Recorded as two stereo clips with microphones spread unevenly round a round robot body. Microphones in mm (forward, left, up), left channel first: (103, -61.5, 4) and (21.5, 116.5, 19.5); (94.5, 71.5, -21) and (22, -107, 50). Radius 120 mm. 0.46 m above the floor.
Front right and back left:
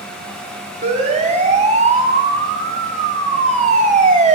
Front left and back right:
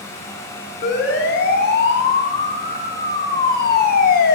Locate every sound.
0.8 s a siren: 60° left, 5.5 m; by 4.3 s 65° left, 3 m